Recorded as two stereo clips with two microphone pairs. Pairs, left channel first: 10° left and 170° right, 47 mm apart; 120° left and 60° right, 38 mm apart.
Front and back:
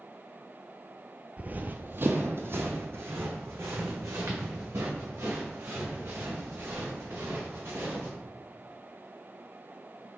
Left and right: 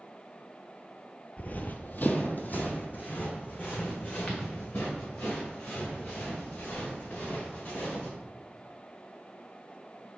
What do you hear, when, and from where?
1.4 s running footsteps: 145° left, 0.5 m; by 8.1 s 165° left, 5 m